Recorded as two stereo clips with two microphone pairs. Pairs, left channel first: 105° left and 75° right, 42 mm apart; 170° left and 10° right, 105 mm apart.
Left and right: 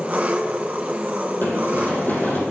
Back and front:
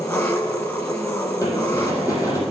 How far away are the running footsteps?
About 3 m.